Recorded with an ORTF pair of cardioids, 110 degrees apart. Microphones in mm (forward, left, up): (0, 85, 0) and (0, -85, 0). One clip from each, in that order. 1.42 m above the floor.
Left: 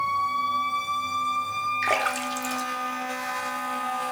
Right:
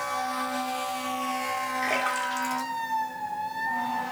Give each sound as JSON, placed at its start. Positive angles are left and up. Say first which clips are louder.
{"t": 1.8, "sound": "a splash", "louder": "left 1 dB", "azimuth_deg": 25, "distance_m": 1.0}